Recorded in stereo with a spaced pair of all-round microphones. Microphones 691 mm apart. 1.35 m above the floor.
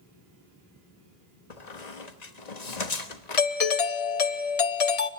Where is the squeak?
70° left (ahead or behind), 1.4 m.